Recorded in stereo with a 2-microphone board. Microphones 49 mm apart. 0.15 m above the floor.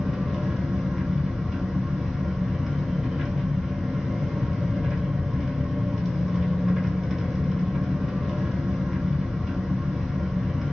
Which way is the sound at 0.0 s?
5° right (ahead or behind).